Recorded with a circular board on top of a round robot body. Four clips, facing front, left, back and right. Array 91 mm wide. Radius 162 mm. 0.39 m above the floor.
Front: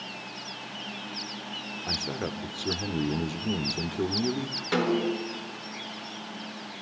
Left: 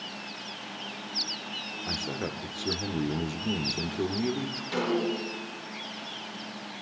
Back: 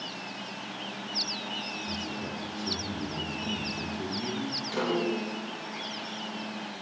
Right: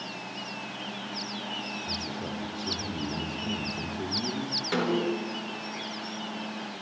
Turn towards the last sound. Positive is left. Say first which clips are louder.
# right 1 dB, front 3 dB
turn(degrees=-30)